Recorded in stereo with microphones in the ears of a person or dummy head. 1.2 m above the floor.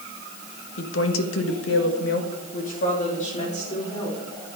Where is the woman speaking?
65° left (ahead or behind), 1.7 m; by 4.2 s 30° left (ahead or behind), 4 m.